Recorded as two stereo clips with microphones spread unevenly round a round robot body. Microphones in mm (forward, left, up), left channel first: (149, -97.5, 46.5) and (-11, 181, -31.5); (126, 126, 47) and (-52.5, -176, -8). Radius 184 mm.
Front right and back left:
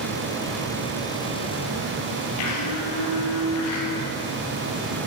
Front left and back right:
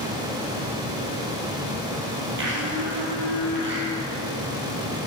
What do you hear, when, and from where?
2.4 s a blender: 60° right, 4 m